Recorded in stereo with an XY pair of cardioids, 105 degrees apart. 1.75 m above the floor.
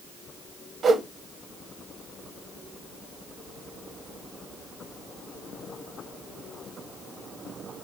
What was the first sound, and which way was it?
A whoosh, 45° right.